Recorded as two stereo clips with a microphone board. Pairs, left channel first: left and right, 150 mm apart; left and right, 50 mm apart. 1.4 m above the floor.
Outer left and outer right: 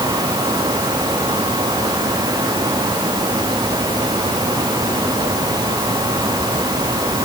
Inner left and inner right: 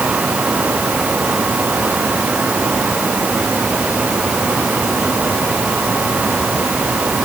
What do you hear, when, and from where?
Only background noise.